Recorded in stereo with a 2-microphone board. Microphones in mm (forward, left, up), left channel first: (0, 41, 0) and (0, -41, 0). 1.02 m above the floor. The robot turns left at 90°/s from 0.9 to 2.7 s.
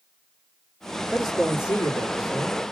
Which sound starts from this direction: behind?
A man speaking, at 1.1 s.